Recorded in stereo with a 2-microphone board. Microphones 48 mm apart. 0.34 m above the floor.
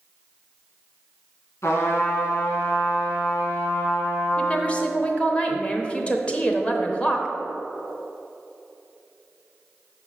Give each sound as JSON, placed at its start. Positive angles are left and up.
{"t": 1.6, "sound": "a trumpet", "side_deg": 65, "distance_m": 1.9}
{"t": 4.4, "sound": "a woman speaking", "side_deg": 25, "distance_m": 0.9}